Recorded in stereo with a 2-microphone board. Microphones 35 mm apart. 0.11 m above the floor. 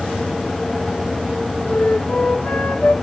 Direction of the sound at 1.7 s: 45° left (ahead or behind).